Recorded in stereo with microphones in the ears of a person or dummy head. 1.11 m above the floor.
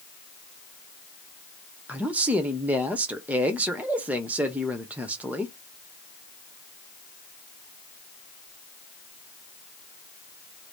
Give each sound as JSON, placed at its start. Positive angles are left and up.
{"t": 1.9, "sound": "a man speaking", "side_deg": -5, "distance_m": 0.6}